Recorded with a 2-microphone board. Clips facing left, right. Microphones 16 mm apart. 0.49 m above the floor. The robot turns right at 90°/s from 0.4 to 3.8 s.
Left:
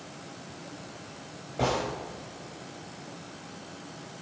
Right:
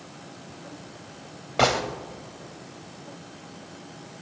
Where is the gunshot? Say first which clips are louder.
Right 6 dB; 75° right (ahead or behind), 1.3 m; by 1.8 s 70° right (ahead or behind), 1.3 m.